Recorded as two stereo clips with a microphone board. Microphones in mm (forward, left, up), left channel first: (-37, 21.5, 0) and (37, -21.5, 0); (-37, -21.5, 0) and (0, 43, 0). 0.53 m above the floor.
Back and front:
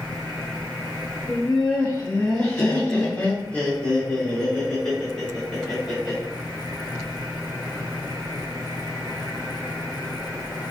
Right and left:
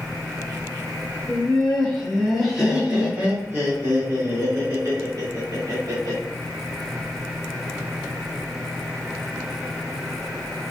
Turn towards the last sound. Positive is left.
turn(degrees=65)